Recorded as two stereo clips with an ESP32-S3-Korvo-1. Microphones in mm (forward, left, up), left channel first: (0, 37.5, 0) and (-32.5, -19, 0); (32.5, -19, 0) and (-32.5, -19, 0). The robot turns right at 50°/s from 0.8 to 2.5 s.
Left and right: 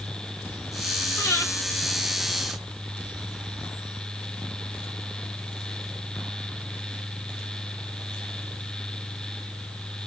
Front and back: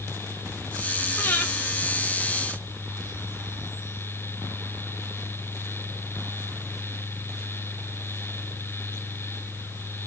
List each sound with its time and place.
1.2 s breathing: 25° left, 1.9 m; by 1.5 s 40° left, 1.9 m